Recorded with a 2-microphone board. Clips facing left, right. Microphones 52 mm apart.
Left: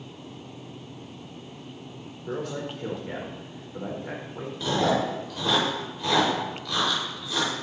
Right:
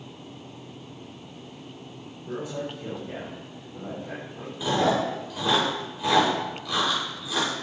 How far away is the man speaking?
About 5 m.